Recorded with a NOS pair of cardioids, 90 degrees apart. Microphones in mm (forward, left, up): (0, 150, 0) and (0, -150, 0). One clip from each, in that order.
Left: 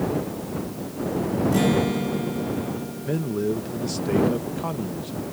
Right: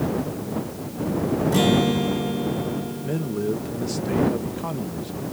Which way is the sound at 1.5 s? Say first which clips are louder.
Right 3 dB; 20° right.